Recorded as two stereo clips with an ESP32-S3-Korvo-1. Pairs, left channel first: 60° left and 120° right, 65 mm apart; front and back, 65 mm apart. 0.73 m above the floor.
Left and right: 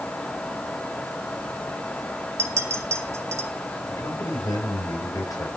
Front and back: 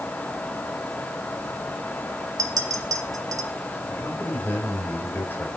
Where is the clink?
160° right, 1.6 m.